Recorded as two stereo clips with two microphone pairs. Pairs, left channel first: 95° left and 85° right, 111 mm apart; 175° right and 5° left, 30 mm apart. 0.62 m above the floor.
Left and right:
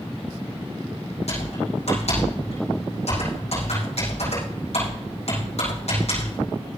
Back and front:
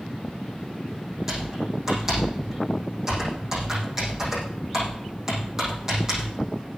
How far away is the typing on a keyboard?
About 7 m.